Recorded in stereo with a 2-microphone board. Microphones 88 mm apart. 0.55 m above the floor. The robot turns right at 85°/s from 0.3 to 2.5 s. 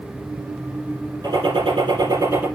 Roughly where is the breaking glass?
No breaking glass in this recording.